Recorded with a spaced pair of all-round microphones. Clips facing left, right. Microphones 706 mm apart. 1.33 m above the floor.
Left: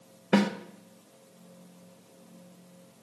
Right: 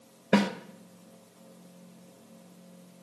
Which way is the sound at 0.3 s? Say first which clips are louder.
Left 1 dB; 5° right (ahead or behind).